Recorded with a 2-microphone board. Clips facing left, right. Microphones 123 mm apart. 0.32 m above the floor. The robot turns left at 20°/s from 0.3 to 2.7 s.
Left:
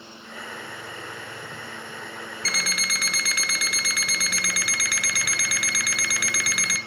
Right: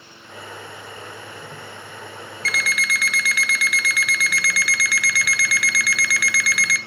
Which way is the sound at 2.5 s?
30° left (ahead or behind).